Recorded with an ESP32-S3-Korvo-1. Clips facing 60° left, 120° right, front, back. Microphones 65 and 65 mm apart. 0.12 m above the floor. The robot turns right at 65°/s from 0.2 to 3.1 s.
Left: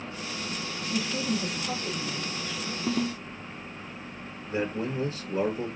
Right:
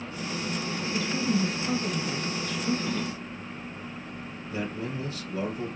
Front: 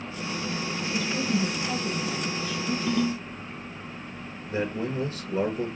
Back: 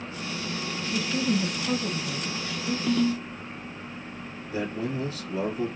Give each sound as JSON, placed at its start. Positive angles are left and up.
{"t": 0.9, "sound": "a woman speaking", "azimuth_deg": 120, "distance_m": 2.5}
{"t": 2.9, "sound": "a ringtone", "azimuth_deg": 85, "distance_m": 0.9}
{"t": 4.5, "sound": "a man speaking", "azimuth_deg": 30, "distance_m": 1.7}